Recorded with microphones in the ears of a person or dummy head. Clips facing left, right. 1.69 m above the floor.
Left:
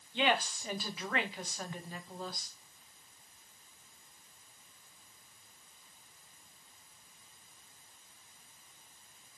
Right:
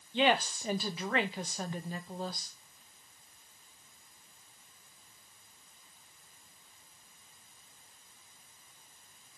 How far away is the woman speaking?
About 0.5 m.